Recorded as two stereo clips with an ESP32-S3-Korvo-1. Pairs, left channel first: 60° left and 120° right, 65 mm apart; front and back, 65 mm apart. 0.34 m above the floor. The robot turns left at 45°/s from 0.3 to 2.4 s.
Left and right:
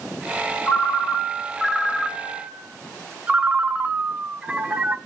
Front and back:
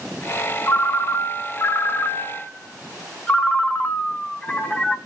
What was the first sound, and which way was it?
A ringtone, 20° left.